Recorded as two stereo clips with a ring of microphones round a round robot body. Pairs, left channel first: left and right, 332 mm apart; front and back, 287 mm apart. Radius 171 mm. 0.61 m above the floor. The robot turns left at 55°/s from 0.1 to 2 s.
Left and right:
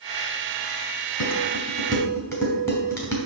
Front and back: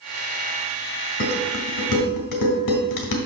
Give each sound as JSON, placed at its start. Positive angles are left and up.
{"t": 1.2, "sound": "dishes clattering", "azimuth_deg": 50, "distance_m": 2.0}